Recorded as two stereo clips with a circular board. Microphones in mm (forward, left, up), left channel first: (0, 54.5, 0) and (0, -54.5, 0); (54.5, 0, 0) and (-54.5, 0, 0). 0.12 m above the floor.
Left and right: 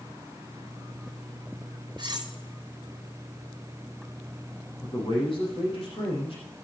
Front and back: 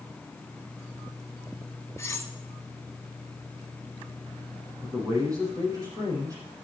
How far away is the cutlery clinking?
About 1.1 m.